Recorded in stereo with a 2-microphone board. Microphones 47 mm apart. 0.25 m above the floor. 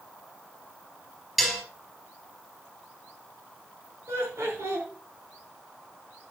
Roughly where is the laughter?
Right.